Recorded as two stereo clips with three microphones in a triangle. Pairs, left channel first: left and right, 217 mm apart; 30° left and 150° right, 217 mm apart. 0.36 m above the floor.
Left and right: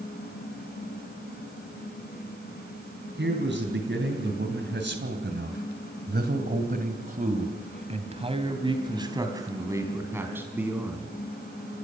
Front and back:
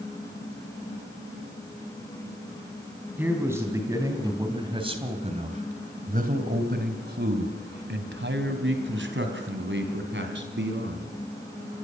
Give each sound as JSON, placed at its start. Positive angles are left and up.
{"t": 3.2, "sound": "a man speaking", "azimuth_deg": -70, "distance_m": 3.5}